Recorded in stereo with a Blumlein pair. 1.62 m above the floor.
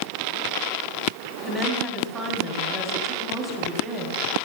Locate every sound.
1.4 s a woman speaking: 15° right, 3 m